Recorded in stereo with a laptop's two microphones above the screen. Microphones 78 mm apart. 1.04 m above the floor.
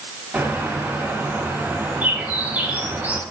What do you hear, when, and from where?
0.3 s a bird: 20° right (ahead or behind), 6 m